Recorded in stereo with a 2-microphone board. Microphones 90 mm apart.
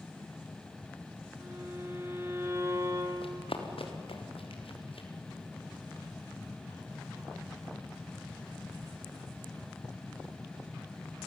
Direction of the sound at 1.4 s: 30° right (ahead or behind).